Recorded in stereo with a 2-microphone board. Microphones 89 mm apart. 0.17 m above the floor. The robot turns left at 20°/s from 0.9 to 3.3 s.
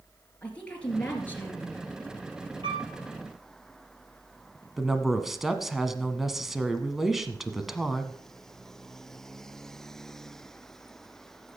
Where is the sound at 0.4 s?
15° left (ahead or behind), 2.5 m; by 1.8 s 30° left (ahead or behind), 2.5 m.